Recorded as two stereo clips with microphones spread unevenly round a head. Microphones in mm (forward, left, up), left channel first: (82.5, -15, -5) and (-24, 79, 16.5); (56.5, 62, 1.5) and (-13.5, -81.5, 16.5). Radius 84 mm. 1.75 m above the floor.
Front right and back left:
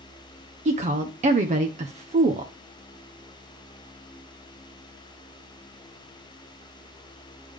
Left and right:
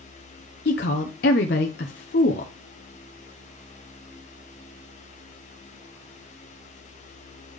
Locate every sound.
0.7 s a woman speaking: 100° left, 0.8 m